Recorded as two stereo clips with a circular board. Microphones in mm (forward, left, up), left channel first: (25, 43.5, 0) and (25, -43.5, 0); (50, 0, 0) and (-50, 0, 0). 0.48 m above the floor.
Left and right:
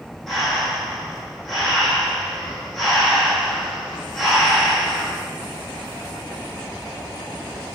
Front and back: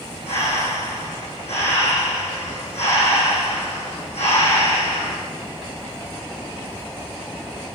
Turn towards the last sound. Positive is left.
turn(degrees=0)